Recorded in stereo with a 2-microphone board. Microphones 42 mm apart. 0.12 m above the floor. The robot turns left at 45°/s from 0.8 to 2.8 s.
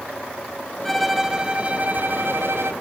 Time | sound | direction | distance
0.8 | a violin | 5° left | 0.8 m